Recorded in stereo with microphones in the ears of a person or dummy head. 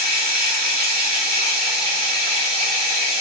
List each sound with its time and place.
0.0 s running water: 40° right (ahead or behind), 1.3 m